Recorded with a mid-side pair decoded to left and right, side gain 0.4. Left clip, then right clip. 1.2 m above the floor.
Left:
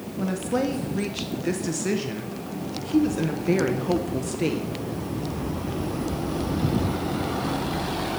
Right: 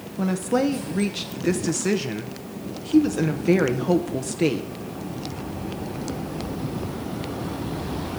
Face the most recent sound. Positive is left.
turn(degrees=-35)